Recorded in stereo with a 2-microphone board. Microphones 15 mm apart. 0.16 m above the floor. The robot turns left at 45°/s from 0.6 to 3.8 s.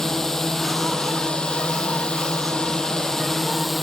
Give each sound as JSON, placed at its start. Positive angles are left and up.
{"t": 0.0, "sound": "a drone", "azimuth_deg": 150}